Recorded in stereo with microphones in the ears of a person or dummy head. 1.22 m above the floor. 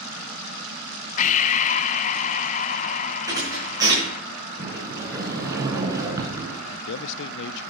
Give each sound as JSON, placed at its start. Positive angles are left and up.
{"t": 1.2, "sound": "breathing", "side_deg": 40, "distance_m": 0.6}
{"t": 3.3, "sound": "a thud", "side_deg": -15, "distance_m": 5.0}
{"t": 4.6, "sound": "a sliding door", "side_deg": -20, "distance_m": 2.0}
{"t": 6.7, "sound": "a man speaking", "side_deg": 60, "distance_m": 0.5}